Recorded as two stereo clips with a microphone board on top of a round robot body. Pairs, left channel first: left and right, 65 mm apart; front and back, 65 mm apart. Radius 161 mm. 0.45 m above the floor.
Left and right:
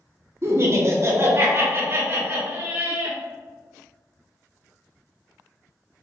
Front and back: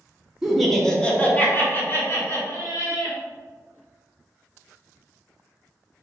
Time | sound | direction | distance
0.4 | laughter | 100° right | 0.9 m